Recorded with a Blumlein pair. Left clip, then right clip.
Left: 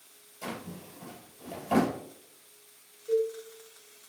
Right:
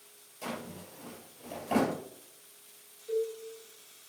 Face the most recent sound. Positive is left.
turn(degrees=20)